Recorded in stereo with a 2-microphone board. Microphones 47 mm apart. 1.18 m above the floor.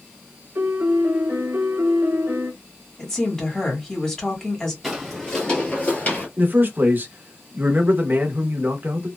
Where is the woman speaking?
15° left (ahead or behind), 1.5 m.